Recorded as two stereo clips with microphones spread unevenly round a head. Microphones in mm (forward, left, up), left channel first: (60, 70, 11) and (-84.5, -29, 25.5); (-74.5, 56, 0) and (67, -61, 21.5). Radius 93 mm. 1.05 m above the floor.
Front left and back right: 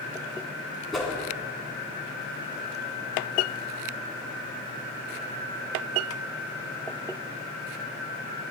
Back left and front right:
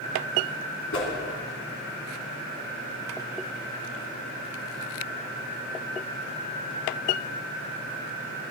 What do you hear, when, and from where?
0.9 s a whoosh: 125° left, 2.5 m